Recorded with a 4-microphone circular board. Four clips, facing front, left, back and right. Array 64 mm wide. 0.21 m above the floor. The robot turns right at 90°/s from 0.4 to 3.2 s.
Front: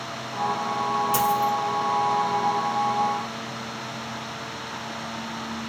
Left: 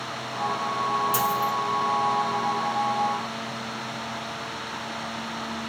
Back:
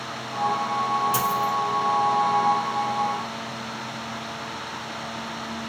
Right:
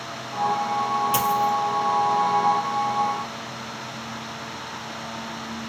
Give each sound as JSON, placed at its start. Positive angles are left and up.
{"t": 1.1, "sound": "a dropped coin", "azimuth_deg": -85, "distance_m": 1.7}